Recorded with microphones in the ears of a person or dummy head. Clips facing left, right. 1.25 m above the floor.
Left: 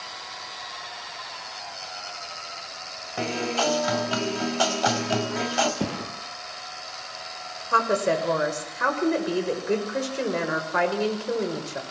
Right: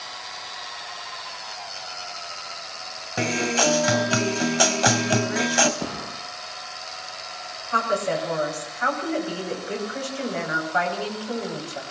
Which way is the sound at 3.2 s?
20° right (ahead or behind).